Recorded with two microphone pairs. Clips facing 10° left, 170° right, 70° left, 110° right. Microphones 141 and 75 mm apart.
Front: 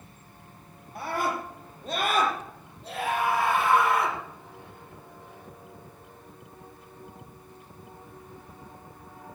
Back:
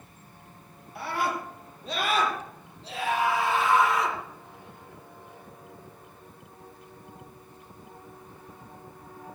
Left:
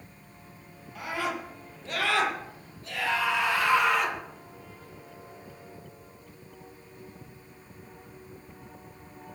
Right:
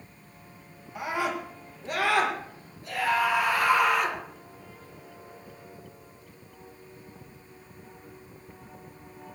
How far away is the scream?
About 8 m.